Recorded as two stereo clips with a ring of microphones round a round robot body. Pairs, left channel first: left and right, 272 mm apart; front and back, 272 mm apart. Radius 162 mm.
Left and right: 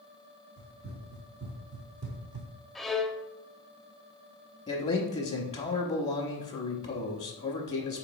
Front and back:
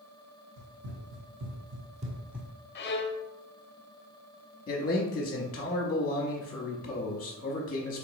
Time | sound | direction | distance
0.6 | running footsteps | 155° right | 1.4 m
2.8 | a violin | straight ahead | 0.6 m
4.7 | a man speaking | 35° left | 0.9 m